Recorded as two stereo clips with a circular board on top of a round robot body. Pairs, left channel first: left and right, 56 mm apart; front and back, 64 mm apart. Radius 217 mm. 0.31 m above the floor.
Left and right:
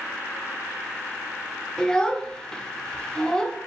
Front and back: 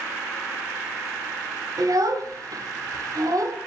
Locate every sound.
1.8 s a child speaking: 165° left, 0.6 m